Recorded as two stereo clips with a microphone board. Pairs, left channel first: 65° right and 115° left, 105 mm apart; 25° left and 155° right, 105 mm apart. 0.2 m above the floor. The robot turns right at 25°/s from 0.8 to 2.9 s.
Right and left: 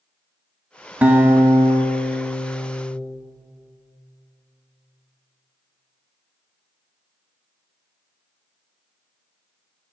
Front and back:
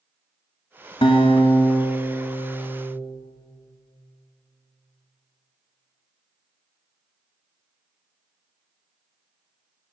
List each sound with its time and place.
1.0 s a guitar: 40° left, 0.6 m; by 3.0 s 90° left, 0.6 m